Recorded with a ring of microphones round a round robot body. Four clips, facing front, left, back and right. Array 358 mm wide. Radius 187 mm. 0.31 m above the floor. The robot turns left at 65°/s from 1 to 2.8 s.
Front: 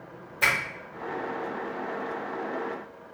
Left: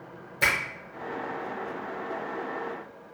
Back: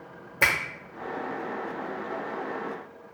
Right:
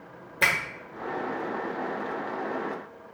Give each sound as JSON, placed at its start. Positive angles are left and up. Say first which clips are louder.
{"t": 0.4, "sound": "a finger snap", "louder": "right 1 dB, back 1 dB", "azimuth_deg": -150, "distance_m": 0.9}